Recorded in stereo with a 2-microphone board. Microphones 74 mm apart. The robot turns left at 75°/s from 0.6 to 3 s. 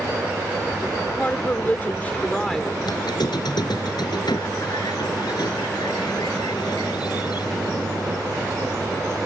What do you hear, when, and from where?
1.2 s a woman speaking: 25° left (ahead or behind); by 2.7 s centre (ahead or behind)
2.8 s a squeak: 70° left (ahead or behind); by 8.2 s 80° left